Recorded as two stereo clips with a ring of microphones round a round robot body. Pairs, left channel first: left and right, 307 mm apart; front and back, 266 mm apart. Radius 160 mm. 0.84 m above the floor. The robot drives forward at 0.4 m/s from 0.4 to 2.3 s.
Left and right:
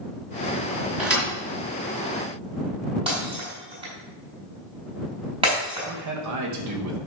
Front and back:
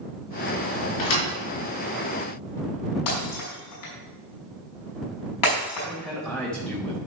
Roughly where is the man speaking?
Right.